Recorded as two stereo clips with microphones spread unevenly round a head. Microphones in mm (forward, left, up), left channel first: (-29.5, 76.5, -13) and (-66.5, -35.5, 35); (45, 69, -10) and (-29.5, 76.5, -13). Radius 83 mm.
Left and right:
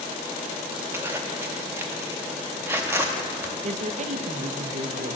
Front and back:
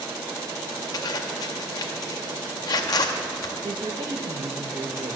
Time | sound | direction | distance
0.9 | a zipper | 45° right | 0.5 m
3.6 | a man speaking | 140° right | 0.6 m